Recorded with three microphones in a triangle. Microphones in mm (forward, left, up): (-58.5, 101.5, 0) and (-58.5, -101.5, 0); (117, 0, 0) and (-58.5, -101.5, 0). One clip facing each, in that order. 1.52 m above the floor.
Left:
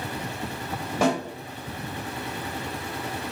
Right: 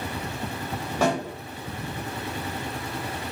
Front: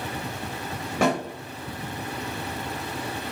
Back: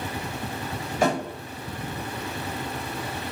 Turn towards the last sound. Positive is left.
turn(degrees=10)